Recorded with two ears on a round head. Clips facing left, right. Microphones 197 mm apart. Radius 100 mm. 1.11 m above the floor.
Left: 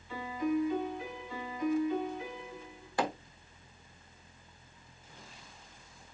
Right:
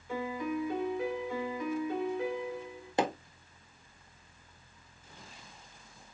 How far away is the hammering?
About 0.8 m.